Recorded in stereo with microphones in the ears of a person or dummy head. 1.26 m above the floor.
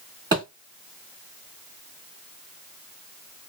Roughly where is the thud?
Right.